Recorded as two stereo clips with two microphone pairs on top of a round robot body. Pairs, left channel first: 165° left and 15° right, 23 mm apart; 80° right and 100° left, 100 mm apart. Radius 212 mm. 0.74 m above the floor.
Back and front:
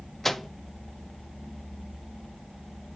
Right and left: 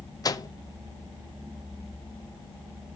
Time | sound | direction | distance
0.2 | a microwave | 120° right | 0.8 m